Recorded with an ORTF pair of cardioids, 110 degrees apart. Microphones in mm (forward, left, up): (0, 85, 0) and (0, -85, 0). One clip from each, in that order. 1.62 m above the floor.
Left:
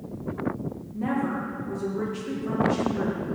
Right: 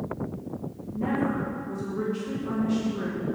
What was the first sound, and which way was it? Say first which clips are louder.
A woman speaking: right 1 dB; straight ahead.